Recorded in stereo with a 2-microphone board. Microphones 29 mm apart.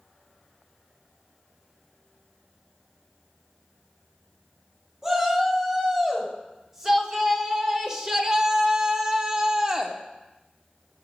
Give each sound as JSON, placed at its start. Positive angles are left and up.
{"t": 5.0, "sound": "a shout", "side_deg": -15, "distance_m": 3.5}